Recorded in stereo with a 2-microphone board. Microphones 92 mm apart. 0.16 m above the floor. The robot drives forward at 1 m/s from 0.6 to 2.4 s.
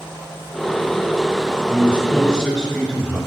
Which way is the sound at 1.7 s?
10° left (ahead or behind).